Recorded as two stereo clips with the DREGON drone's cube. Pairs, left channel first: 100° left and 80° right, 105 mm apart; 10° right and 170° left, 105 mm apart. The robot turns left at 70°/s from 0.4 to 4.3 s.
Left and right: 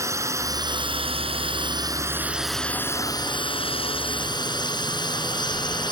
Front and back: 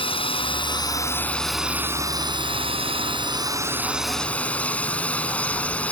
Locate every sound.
0.0 s a drone: 20° right; by 5.9 s 65° left